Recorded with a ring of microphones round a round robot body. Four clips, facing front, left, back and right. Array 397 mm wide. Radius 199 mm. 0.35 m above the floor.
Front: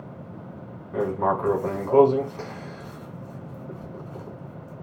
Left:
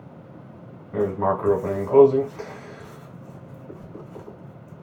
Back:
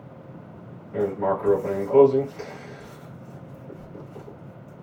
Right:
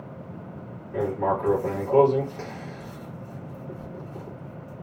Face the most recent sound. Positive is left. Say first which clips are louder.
# left 2 dB, even
turn(degrees=45)